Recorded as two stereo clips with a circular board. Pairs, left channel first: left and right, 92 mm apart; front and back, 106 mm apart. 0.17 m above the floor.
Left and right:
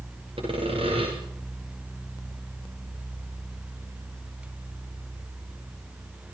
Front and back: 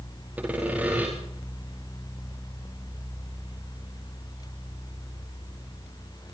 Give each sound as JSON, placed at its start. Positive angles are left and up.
{"t": 0.4, "sound": "sawing", "azimuth_deg": -105, "distance_m": 9.5}